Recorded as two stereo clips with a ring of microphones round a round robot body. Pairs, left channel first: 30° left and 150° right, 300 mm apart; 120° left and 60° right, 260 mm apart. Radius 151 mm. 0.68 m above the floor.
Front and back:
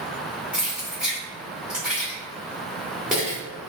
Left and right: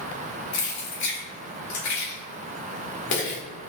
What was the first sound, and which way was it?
Keys jangling, 125° left.